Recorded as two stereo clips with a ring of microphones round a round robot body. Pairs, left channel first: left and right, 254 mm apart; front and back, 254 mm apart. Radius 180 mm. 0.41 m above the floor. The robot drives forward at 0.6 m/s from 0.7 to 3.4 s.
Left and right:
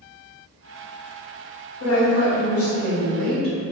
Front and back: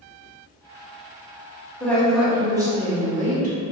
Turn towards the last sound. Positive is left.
turn(degrees=125)